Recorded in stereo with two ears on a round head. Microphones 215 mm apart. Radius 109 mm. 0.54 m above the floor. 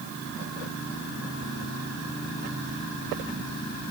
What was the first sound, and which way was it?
Only background noise.